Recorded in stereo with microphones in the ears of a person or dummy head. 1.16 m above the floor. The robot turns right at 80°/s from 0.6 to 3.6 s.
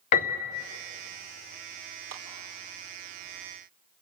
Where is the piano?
45° left (ahead or behind), 0.5 m; by 0.7 s 50° left (ahead or behind), 0.5 m.